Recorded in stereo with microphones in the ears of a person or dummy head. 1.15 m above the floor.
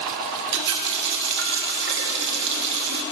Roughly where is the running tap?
Right.